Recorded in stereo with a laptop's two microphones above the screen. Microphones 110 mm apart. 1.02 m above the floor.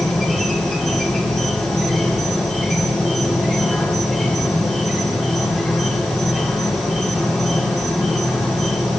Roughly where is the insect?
Centre.